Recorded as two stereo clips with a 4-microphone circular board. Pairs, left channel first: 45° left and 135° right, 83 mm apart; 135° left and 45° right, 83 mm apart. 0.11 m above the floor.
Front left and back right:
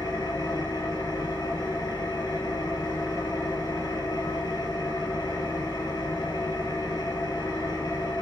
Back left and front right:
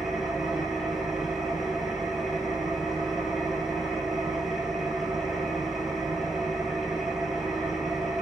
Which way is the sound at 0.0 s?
40° left.